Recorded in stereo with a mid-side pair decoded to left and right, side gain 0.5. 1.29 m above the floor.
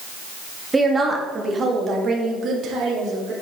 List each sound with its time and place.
0.7 s a woman speaking: 20° right, 1.9 m; by 3.3 s 65° right, 3 m